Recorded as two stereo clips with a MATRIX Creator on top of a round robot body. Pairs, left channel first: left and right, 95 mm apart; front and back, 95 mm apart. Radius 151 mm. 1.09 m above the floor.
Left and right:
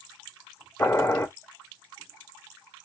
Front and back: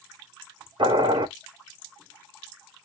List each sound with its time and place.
0.8 s boiling: 160° left, 2 m